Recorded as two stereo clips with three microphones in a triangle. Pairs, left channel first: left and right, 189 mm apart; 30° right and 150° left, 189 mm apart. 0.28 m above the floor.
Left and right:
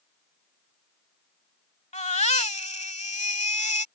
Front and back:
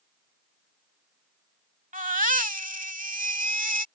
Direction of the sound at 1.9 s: 125° left.